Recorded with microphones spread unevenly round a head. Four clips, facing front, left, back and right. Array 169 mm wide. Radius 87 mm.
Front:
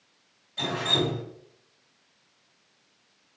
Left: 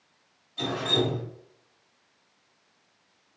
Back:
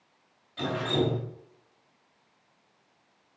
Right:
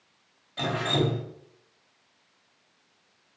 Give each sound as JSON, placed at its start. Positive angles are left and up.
{"t": 0.6, "sound": "dripping", "azimuth_deg": -95, "distance_m": 3.5}